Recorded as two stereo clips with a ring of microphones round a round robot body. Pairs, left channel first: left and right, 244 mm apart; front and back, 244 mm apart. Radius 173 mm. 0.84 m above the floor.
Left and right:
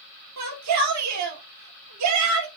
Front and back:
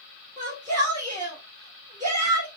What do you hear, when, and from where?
0.4 s a shout: 110° right, 2 m